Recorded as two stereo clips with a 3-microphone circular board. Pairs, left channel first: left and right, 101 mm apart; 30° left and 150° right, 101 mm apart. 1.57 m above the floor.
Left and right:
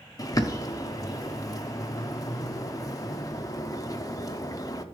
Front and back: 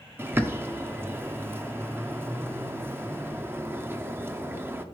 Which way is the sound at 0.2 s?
145° left.